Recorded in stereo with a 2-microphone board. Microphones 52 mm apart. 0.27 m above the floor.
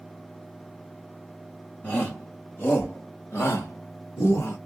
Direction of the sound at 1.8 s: 25° left (ahead or behind).